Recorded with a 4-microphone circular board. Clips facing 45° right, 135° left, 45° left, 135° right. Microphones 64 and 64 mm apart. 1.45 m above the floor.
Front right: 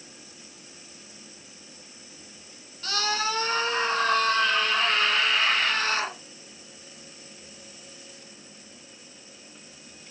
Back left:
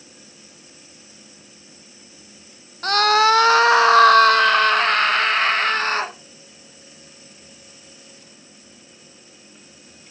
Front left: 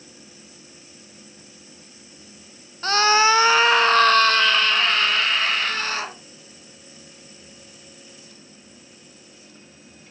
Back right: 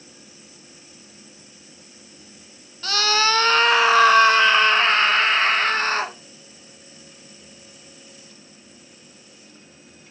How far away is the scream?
About 0.7 m.